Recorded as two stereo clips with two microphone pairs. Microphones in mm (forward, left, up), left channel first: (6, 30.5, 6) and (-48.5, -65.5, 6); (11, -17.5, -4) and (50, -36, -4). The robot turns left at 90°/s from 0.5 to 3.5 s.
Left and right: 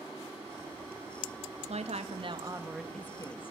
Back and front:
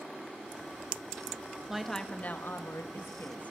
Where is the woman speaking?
105° right, 1.9 m; by 3.5 s 95° left, 1.9 m.